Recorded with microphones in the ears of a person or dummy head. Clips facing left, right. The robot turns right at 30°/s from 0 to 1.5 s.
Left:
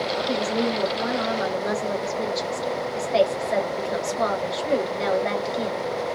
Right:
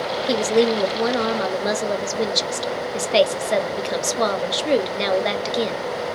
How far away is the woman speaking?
About 0.7 m.